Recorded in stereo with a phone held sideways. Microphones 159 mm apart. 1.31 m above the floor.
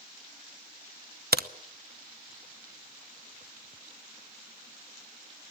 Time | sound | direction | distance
1.3 | a crack | 80° right | 0.9 m